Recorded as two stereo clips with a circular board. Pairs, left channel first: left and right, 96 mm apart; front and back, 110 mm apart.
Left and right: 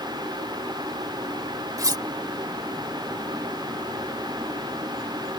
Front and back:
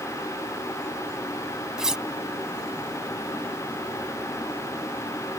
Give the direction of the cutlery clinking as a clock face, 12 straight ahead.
3 o'clock.